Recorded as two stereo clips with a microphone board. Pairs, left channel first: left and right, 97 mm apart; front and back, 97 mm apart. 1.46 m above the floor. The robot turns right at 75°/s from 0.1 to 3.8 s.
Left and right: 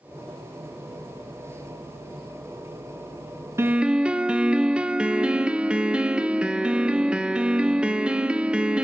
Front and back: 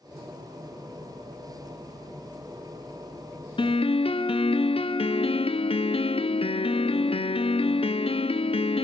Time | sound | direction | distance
3.6 | a piano | 25° right | 0.5 m